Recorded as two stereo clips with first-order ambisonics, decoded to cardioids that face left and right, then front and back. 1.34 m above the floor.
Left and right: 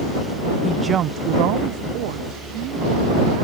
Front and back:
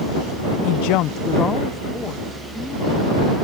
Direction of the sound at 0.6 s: 15° left.